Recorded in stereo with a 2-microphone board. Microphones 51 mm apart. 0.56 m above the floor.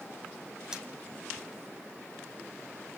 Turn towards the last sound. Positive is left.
turn(degrees=-15)  # may be behind; listen again after turning